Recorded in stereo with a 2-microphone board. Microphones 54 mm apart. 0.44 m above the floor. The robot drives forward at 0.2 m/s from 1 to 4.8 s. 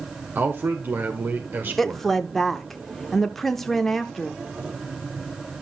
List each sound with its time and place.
0.3 s a man speaking: 40° right (ahead or behind), 1.3 m; by 2.2 s 35° right (ahead or behind), 1.4 m
1.8 s a woman speaking: 5° left (ahead or behind), 0.7 m